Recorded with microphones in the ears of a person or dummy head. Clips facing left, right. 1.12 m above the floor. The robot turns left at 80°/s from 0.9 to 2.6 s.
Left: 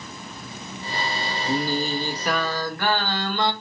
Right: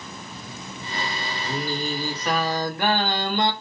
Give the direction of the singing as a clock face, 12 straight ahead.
10 o'clock.